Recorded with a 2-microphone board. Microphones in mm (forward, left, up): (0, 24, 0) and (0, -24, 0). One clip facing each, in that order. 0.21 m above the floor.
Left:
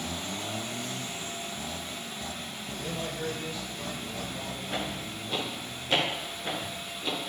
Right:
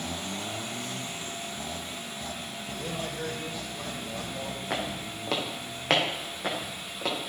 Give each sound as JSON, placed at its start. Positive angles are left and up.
{"t": 2.8, "sound": "a man speaking", "side_deg": -40, "distance_m": 6.0}
{"t": 4.7, "sound": "footsteps", "side_deg": -80, "distance_m": 4.5}